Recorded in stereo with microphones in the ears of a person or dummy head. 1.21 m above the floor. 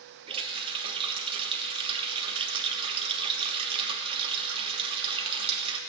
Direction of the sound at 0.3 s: 30° right (ahead or behind).